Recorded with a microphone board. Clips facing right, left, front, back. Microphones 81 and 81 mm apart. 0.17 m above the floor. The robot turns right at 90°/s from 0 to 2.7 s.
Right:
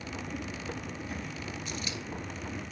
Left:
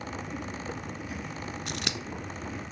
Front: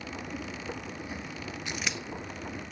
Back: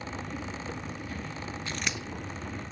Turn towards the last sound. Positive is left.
turn(degrees=165)